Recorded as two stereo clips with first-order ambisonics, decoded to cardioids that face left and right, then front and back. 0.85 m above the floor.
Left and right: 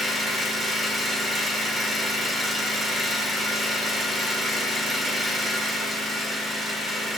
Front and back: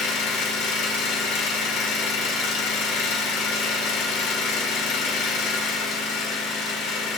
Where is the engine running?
10° right, 1.9 m.